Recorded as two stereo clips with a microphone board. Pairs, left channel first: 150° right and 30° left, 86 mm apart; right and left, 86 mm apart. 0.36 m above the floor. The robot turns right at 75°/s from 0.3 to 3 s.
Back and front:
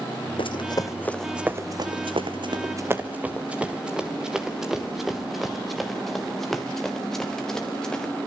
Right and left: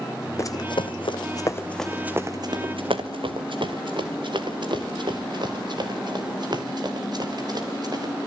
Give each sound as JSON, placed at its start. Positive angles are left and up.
{"t": 0.4, "sound": "running footsteps", "azimuth_deg": -145, "distance_m": 1.4}